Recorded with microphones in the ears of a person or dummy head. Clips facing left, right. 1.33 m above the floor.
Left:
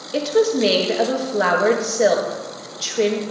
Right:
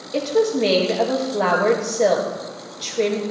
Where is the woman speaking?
10° left (ahead or behind), 2 m.